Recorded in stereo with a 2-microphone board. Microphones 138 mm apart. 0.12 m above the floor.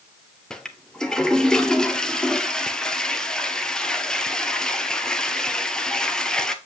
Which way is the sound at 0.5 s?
5° left (ahead or behind).